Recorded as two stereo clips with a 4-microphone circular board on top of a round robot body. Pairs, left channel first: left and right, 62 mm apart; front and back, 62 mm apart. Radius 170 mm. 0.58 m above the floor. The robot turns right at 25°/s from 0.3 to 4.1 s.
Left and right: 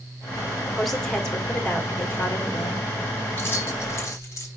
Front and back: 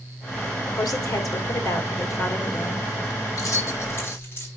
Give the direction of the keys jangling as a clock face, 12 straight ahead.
11 o'clock.